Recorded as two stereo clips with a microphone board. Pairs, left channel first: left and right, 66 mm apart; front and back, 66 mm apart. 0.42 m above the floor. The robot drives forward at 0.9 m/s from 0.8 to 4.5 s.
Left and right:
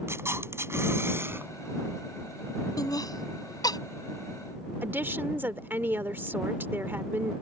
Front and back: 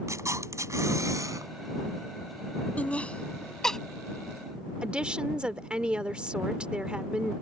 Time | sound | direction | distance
0.1 | a camera shutter | 140° right | ?
2.8 | laughter | 65° left | ?
4.8 | a woman speaking | 115° right | ?